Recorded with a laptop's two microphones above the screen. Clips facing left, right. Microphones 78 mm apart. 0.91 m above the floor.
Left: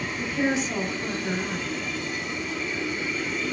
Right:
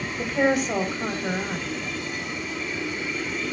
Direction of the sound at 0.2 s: 55° right (ahead or behind).